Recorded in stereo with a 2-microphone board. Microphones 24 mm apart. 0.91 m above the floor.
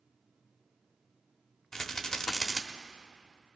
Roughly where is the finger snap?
I don't hear a finger snap.